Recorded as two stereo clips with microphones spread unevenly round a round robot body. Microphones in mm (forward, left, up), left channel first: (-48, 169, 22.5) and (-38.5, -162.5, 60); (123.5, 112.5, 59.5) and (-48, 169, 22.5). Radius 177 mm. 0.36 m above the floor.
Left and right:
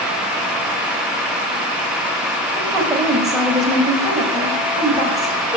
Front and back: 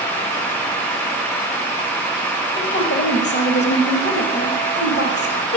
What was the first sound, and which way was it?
A woman speaking, 5° right.